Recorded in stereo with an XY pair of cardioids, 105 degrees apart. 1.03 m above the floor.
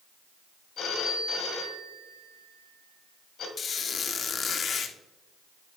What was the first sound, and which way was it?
A phone ringing, 65° left.